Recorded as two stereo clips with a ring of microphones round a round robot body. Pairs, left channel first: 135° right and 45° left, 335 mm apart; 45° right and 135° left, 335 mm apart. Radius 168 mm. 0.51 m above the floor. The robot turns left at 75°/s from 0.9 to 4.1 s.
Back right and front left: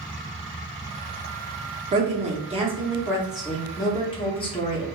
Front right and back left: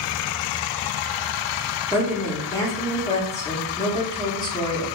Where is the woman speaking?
70° left, 0.6 m; by 4.8 s 95° right, 0.6 m.